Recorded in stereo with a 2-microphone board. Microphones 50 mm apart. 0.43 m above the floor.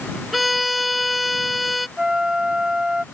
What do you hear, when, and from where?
0.3 s a violin: centre (ahead or behind)
2.0 s a flute: 15° right (ahead or behind)